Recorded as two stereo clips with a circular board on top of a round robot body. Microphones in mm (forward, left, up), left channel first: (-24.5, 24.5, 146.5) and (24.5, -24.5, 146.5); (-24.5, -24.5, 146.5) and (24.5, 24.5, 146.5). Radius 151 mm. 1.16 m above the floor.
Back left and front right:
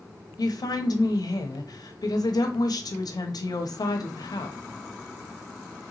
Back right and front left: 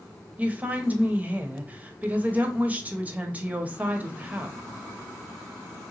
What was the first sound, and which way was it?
A woman speaking, 115° left.